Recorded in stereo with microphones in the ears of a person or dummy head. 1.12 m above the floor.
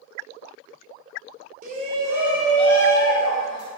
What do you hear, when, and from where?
1.6 s a shout: 50° right (ahead or behind), 0.6 m; by 3.7 s 35° left (ahead or behind), 1.2 m